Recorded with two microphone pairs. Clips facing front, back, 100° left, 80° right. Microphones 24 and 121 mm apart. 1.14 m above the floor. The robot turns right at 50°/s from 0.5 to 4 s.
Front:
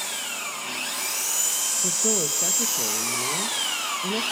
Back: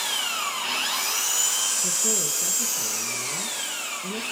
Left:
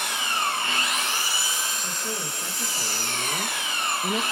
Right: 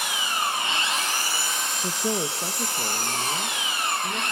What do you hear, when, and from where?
0.0 s an engine running: 155° right, 7 m; by 4.3 s 20° left, 7 m
1.8 s a woman speaking: 55° right, 1.5 m; by 4.2 s 55° left, 1.5 m